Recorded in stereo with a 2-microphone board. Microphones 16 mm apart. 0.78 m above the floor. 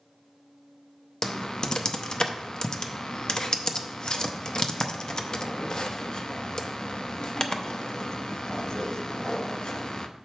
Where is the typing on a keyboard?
55° left (ahead or behind), 0.6 m.